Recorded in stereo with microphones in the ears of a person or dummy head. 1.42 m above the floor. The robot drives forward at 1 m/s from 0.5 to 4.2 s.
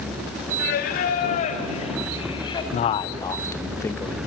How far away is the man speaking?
About 0.6 m.